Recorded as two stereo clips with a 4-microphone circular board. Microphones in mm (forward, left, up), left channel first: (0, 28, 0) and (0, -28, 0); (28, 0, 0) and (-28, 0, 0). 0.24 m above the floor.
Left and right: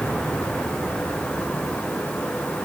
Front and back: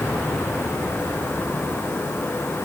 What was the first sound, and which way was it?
Only background noise.